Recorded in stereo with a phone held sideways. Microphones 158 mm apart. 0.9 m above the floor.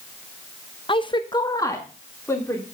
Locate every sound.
0.9 s a woman speaking: 35° left (ahead or behind), 0.7 m; by 2.6 s 15° left (ahead or behind), 3 m